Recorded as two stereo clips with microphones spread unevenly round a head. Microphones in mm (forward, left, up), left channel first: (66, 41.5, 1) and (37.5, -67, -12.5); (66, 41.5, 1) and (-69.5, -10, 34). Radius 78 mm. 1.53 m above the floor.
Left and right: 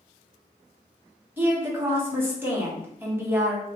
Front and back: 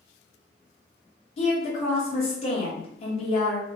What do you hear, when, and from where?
1.4 s a woman speaking: 35° right, 1.1 m